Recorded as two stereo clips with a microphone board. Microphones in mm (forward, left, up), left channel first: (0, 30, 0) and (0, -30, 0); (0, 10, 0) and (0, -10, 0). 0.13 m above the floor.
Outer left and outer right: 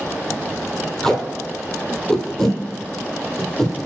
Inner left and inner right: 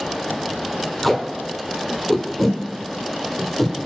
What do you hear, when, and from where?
1.0 s tape being pulled: 10° left (ahead or behind), 1.1 m